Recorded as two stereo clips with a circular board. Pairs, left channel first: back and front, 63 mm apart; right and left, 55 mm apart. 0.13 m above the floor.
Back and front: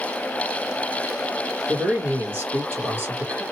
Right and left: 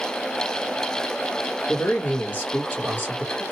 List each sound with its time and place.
1.7 s a man speaking: 50° right, 2 m